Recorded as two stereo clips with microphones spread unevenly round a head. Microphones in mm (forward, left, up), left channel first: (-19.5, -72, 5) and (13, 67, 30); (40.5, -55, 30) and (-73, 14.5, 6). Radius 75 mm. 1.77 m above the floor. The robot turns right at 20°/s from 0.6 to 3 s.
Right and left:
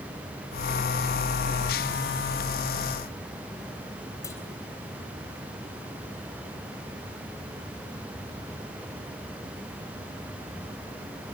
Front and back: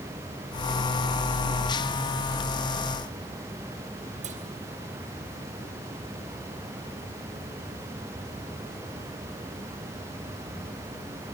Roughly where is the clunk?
Behind.